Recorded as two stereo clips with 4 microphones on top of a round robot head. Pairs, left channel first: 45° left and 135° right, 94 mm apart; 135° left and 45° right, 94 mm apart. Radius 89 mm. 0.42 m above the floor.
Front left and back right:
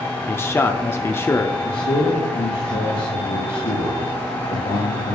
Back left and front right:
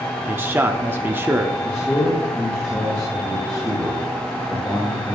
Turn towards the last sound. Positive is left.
turn(degrees=60)